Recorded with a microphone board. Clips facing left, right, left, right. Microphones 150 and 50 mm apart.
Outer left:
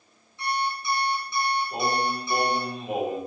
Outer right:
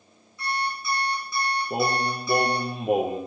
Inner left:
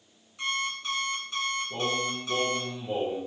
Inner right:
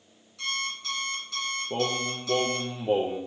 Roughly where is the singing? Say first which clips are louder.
Outer right 1 dB, inner right 1 dB; right.